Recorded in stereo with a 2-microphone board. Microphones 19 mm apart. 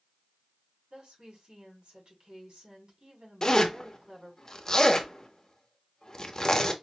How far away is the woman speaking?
About 2.5 m.